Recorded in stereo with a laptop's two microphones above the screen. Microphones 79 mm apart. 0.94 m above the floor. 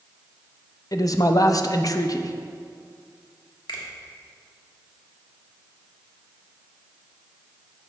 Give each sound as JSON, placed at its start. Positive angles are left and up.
{"t": 0.9, "sound": "a man speaking", "side_deg": 50, "distance_m": 0.5}
{"t": 3.7, "sound": "a finger snap", "side_deg": 75, "distance_m": 1.5}